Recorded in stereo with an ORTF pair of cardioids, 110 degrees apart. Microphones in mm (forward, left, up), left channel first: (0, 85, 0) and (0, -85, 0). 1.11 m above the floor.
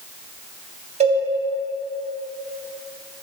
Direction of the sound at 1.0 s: 40° right.